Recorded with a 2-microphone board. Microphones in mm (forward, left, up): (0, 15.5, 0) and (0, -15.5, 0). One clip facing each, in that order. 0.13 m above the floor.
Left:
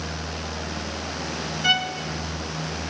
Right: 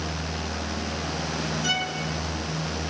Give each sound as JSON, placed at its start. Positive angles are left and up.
{"t": 1.6, "sound": "a violin", "side_deg": 35, "distance_m": 0.6}